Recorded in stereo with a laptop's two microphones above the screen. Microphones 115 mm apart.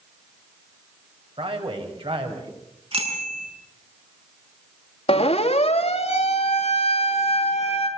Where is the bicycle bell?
60° right (ahead or behind), 7.5 m.